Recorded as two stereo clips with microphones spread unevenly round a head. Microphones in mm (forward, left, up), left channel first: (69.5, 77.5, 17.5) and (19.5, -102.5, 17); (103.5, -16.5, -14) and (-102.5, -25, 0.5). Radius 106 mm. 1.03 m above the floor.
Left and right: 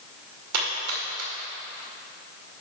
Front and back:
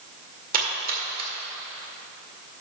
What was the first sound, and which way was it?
A splash, 130° right.